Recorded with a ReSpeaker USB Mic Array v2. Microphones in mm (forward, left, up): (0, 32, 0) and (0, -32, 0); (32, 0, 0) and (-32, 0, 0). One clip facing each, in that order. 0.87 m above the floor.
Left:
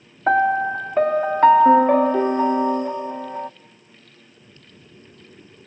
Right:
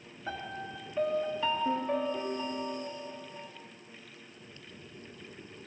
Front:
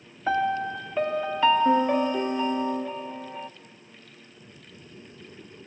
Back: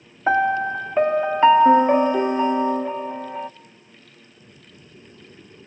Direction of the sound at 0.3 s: 120° left.